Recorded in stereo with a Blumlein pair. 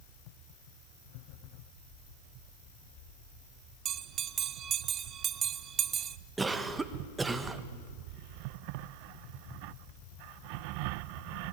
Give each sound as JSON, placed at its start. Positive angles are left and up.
{"t": 3.9, "sound": "a bell", "azimuth_deg": -25, "distance_m": 0.6}
{"t": 6.4, "sound": "a cough", "azimuth_deg": -15, "distance_m": 1.5}